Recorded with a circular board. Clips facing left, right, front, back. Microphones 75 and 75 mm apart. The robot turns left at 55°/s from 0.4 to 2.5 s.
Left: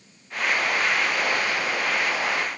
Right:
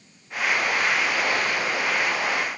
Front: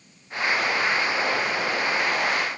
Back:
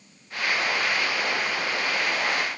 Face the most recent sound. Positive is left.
No sound to turn to.